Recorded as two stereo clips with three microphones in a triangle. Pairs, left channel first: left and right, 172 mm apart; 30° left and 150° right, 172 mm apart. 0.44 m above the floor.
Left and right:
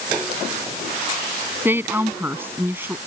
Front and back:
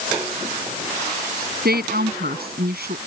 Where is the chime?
I don't hear a chime.